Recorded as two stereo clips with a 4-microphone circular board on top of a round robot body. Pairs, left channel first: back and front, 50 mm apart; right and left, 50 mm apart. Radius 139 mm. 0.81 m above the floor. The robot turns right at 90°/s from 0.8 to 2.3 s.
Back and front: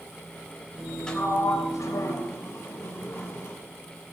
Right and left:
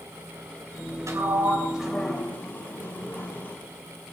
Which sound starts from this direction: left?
A sliding door, at 1.1 s.